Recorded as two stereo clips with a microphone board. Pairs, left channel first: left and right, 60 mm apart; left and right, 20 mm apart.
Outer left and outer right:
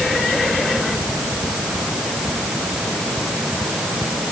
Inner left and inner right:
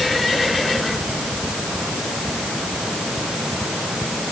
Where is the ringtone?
No ringtone in this recording.